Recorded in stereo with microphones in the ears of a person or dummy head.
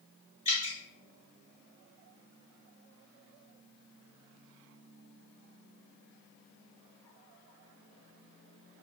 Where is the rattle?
No rattle in this recording.